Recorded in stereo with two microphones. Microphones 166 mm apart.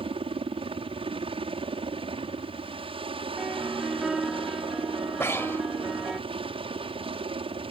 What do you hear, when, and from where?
0.0 s a helicopter: 35° right (ahead or behind)
3.4 s a piano: 5° right (ahead or behind)
5.2 s breathing: 15° left (ahead or behind)